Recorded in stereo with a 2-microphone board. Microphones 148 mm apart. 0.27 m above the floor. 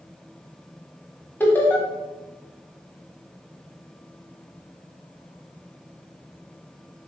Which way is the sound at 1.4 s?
15° left (ahead or behind).